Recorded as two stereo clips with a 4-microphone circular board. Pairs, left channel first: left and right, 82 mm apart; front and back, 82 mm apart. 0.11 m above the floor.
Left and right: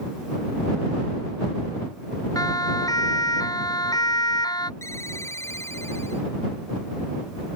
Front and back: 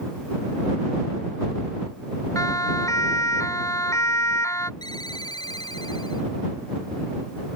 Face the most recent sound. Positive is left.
turn(degrees=35)